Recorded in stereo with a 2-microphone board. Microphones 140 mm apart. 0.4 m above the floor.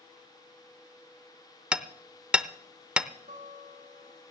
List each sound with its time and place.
1.7 s hammering: 5° right (ahead or behind), 0.6 m
3.3 s a guitar: 70° right (ahead or behind), 4.5 m